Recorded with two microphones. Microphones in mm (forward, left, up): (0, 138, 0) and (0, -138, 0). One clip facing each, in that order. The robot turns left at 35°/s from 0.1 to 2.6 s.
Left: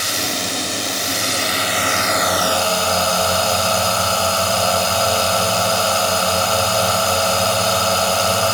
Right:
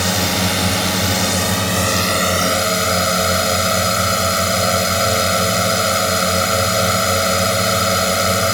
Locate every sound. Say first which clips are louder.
0.0 s a drone: right 6 dB; 70° right; by 8.5 s 160° right